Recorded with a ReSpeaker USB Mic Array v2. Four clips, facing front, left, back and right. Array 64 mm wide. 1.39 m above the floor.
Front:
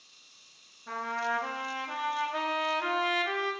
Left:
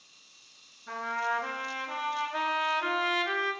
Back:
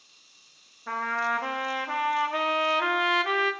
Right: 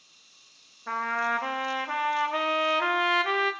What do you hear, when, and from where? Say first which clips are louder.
0.9 s a trumpet: right 4 dB, back 4 dB; 130° right, 1.1 m